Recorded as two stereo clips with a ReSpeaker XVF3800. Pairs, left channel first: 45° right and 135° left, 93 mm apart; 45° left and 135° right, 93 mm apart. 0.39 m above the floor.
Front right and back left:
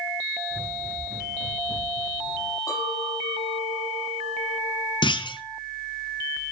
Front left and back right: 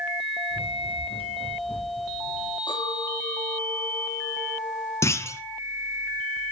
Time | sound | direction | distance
0.5 | running footsteps | 55° left | 7.5 m
2.7 | a clink | 10° left | 6.5 m
5.0 | a clunk | 15° right | 1.1 m